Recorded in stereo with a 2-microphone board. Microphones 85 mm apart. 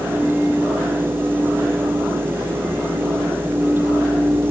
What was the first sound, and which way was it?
Only background noise.